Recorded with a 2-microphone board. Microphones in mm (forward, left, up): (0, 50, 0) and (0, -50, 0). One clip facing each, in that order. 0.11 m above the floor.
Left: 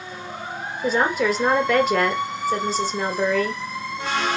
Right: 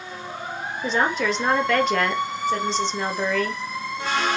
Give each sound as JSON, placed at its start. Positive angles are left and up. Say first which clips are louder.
{"t": 0.8, "sound": "a woman speaking", "louder": "left 2 dB", "side_deg": 5, "distance_m": 2.5}